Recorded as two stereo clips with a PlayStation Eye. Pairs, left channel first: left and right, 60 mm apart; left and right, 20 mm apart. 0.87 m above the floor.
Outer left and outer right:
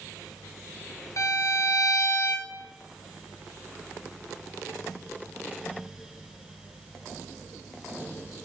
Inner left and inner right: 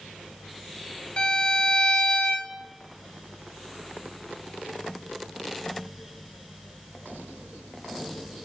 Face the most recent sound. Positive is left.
turn(degrees=65)  # may be behind; listen again after turning